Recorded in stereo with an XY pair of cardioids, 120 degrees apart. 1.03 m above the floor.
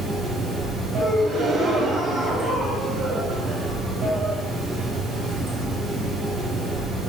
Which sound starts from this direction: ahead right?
A gasp, at 1.0 s.